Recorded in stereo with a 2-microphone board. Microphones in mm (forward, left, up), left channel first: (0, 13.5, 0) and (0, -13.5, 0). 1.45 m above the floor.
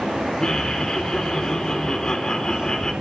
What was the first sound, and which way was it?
Laughter, 25° left (ahead or behind).